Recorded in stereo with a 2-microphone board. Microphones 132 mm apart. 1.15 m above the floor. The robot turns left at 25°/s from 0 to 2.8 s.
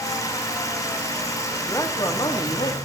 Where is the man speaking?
20° left (ahead or behind), 1.7 m; by 2.8 s 50° left (ahead or behind), 1.7 m.